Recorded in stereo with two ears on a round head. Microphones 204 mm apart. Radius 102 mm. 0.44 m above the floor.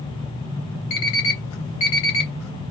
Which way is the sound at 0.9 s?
70° left (ahead or behind).